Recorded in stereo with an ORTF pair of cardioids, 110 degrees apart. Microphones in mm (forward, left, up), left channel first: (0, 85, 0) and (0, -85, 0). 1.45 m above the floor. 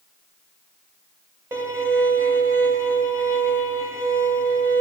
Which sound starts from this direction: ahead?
A violin, at 1.5 s.